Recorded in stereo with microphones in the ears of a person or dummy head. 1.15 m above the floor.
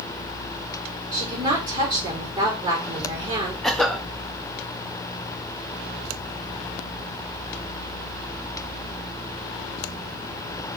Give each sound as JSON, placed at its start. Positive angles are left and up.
{"t": 1.1, "sound": "a woman speaking", "side_deg": -25, "distance_m": 4.0}
{"t": 3.6, "sound": "a cough", "side_deg": 5, "distance_m": 1.6}